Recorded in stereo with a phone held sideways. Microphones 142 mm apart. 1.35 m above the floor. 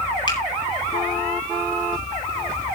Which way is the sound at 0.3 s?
30° left (ahead or behind).